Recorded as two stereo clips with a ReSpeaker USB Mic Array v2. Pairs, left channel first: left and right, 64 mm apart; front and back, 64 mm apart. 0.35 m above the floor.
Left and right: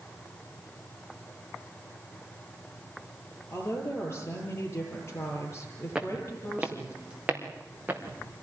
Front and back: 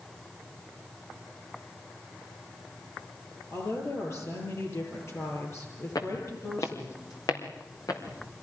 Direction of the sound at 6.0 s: 10° right.